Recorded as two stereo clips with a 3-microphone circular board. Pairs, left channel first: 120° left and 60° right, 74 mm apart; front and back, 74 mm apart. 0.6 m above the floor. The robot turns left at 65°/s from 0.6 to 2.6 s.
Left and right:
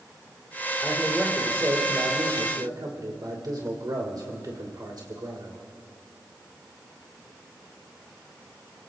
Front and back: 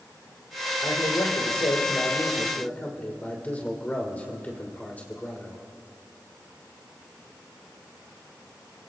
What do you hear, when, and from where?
0.8 s a man speaking: 50° left, 2.5 m; by 5.6 s 65° right, 2.5 m